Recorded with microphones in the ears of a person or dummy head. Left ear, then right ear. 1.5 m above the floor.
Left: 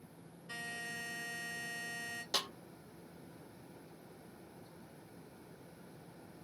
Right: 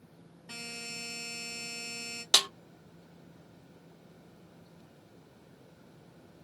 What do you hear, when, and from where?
0.5 s a buzzer: 45° right (ahead or behind), 2.0 m
2.3 s a snare drum: 85° right, 0.6 m